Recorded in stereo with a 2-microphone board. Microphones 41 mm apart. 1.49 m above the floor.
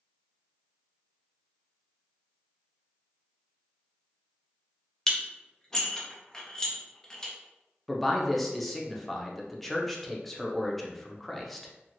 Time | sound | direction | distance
5.1 | dishes clattering | 15° left (ahead or behind) | 0.5 m
7.9 | a man speaking | 5° left (ahead or behind) | 0.5 m